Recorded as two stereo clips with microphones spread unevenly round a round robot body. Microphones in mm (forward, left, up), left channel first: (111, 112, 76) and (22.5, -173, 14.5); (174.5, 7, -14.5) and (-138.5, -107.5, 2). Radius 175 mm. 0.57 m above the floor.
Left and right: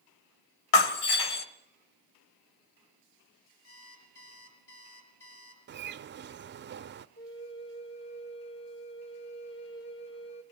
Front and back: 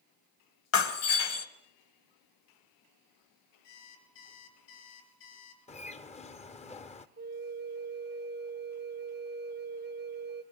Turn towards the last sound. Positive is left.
turn(degrees=140)